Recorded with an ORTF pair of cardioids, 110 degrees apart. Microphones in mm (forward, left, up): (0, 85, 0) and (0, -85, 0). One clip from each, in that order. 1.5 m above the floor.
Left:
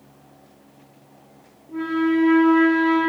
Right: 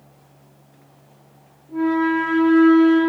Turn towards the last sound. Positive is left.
turn(degrees=15)